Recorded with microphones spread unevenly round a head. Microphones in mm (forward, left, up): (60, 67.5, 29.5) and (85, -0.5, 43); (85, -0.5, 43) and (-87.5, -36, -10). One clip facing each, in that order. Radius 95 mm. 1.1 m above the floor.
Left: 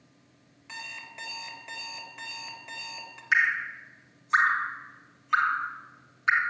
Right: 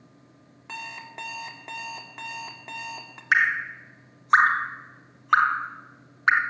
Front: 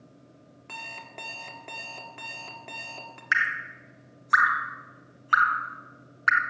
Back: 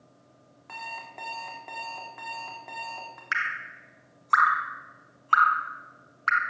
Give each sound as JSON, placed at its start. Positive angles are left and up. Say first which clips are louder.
{"t": 0.7, "sound": "an alarm clock", "louder": "right 4 dB, back 2 dB", "azimuth_deg": -40, "distance_m": 1.6}
{"t": 3.3, "sound": "dripping", "louder": "right 3 dB, front 6 dB", "azimuth_deg": -55, "distance_m": 1.0}